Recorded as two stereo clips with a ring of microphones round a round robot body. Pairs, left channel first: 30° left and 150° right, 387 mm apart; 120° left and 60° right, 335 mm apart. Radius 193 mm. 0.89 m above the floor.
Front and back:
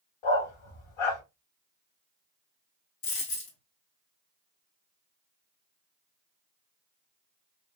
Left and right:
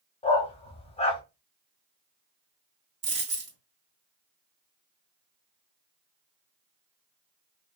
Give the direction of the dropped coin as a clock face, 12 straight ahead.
12 o'clock.